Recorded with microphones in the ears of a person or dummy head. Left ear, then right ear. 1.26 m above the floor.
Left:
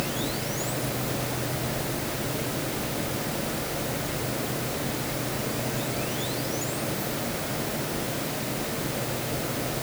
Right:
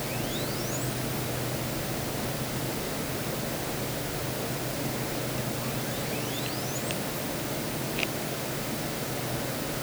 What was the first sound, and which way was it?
Only background noise.